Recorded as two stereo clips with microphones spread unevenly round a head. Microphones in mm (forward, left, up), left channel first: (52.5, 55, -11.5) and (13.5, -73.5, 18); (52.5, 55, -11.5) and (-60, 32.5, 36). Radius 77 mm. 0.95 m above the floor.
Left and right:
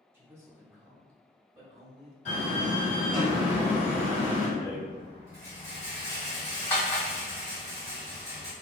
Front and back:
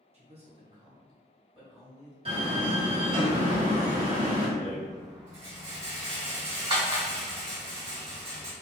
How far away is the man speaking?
About 1.0 m.